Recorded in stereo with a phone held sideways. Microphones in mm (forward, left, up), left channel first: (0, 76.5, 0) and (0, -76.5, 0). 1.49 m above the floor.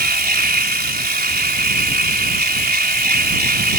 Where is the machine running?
80° right.